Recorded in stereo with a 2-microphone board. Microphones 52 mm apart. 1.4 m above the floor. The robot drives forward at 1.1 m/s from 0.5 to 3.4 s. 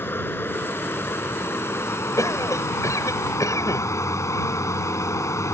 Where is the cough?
80° left; by 3.9 s 85° left.